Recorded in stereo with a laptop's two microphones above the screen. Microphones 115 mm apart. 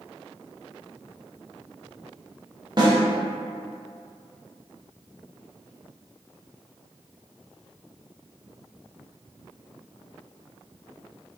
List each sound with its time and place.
2.8 s a snare drum: 40° right (ahead or behind), 0.7 m